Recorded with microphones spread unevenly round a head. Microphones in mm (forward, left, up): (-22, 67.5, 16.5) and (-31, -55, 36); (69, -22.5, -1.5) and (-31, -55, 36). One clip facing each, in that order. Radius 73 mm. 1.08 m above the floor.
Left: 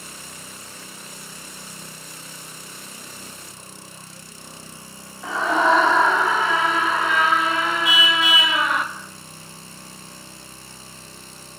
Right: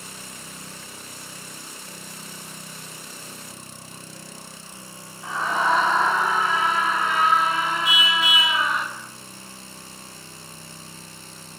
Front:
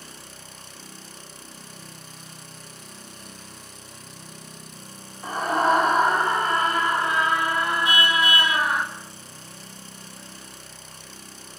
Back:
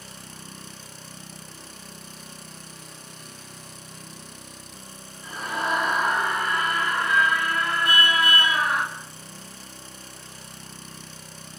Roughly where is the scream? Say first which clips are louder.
Left 4 dB, front 7 dB; ahead left.